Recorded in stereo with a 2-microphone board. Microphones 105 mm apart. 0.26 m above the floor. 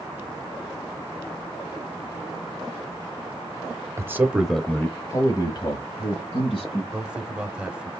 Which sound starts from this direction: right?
A man speaking, at 4.0 s.